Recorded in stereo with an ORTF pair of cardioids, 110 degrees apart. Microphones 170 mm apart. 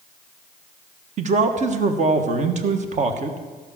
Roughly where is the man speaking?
Ahead right.